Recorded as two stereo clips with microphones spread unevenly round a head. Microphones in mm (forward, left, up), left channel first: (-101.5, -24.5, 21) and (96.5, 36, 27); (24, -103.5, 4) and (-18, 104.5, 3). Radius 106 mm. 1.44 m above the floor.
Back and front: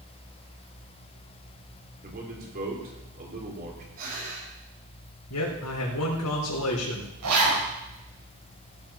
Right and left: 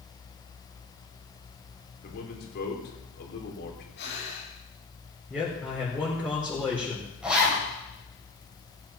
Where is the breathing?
35° right, 7 m.